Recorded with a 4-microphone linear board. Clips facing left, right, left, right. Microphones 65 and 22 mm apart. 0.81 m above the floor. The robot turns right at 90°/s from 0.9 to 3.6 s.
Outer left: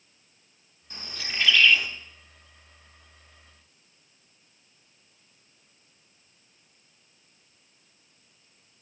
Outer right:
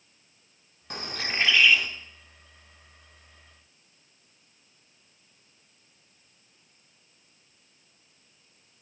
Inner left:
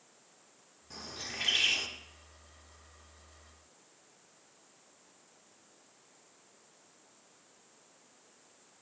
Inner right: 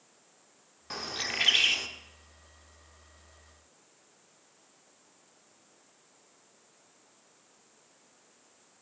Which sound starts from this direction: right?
A bird, at 0.9 s.